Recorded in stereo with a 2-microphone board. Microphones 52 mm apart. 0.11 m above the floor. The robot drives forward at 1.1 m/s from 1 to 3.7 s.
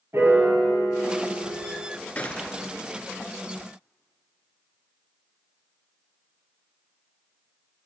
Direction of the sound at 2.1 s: 30° left (ahead or behind).